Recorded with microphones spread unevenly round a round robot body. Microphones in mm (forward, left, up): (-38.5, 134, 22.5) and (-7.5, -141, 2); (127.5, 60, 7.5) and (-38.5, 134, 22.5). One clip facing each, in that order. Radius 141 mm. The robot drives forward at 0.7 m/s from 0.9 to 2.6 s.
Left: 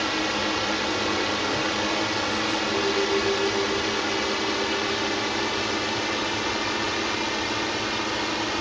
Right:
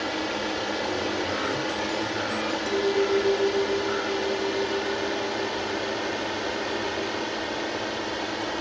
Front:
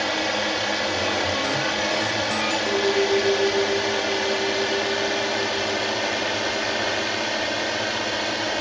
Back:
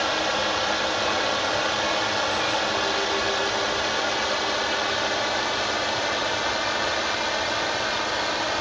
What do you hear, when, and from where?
0.0 s a drone: 30° left
2.7 s a clink: 55° right